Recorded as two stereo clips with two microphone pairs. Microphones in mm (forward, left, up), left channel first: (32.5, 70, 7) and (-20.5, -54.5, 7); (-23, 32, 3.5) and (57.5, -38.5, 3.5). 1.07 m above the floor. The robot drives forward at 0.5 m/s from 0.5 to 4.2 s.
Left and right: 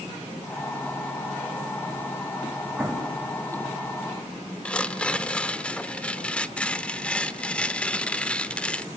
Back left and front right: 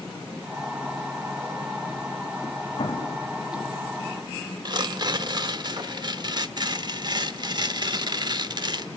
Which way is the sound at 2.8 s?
170° left.